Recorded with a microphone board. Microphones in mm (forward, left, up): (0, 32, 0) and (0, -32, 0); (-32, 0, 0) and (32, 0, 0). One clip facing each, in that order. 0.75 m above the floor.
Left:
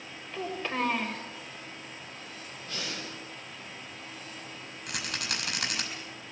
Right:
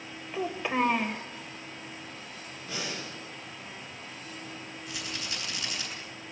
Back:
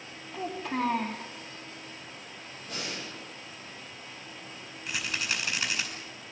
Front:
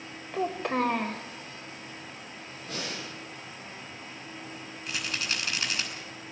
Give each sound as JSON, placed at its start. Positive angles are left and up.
{"t": 0.3, "sound": "a child speaking", "azimuth_deg": -15, "distance_m": 1.9}
{"t": 2.6, "sound": "breathing", "azimuth_deg": -5, "distance_m": 8.5}
{"t": 4.9, "sound": "a rattle", "azimuth_deg": 95, "distance_m": 5.0}